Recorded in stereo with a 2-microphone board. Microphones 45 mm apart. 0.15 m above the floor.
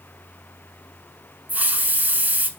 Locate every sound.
1.5 s a hiss: 40° right (ahead or behind), 1.0 m